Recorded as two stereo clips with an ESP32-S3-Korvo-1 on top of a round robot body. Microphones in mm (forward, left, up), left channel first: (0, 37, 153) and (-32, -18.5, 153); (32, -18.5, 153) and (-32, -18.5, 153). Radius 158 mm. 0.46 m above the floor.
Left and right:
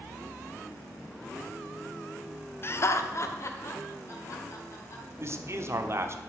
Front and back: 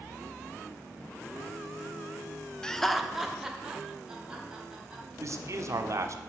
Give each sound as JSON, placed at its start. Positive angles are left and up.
{"t": 2.6, "sound": "laughter", "azimuth_deg": 70, "distance_m": 0.8}
{"t": 5.2, "sound": "a man speaking", "azimuth_deg": -155, "distance_m": 1.3}